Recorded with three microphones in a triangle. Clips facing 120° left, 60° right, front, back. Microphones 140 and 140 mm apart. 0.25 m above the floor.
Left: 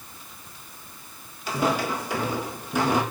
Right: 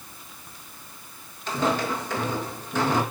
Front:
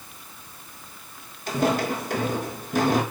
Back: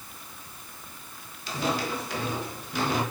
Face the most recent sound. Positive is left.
turn(degrees=45)